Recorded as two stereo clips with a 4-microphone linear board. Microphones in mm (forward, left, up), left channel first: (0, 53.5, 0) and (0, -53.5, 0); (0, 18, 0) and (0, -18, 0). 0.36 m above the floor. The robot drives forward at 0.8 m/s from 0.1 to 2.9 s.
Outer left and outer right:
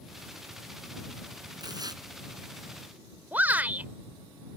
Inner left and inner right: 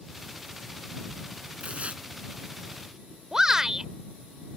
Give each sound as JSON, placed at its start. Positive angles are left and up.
{"t": 1.6, "sound": "tearing paper", "side_deg": -40}
{"t": 3.3, "sound": "a shout", "side_deg": -15}